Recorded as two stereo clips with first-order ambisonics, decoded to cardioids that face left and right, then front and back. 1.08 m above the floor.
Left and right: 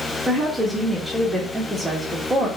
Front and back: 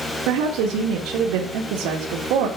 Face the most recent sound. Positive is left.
turn(degrees=-170)